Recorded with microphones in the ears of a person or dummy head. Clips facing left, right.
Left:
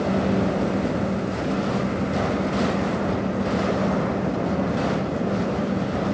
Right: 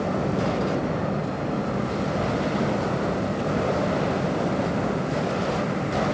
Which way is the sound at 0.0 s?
20° left (ahead or behind).